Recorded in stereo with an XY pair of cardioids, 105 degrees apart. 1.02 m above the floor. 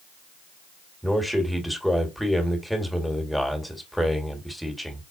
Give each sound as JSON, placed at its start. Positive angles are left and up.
{"t": 1.0, "sound": "a man speaking", "azimuth_deg": 0, "distance_m": 1.7}